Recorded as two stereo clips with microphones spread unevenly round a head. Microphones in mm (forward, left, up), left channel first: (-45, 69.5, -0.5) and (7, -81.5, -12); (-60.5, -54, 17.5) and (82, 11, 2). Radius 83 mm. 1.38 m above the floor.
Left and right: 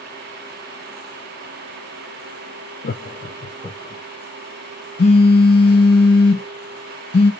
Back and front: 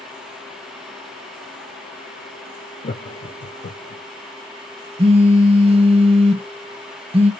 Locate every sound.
2.8 s laughter: 145° left, 0.5 m; by 4.0 s 175° right, 1.0 m
5.0 s a phone buzzing: 75° left, 0.6 m